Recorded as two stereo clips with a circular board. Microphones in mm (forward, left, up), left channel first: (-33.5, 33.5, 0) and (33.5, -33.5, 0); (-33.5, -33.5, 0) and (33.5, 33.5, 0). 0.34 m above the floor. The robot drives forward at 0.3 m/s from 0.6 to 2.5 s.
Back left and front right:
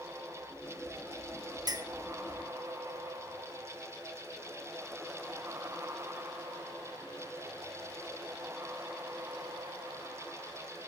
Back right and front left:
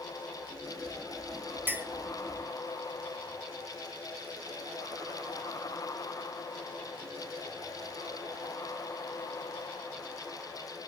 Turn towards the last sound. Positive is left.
turn(degrees=-35)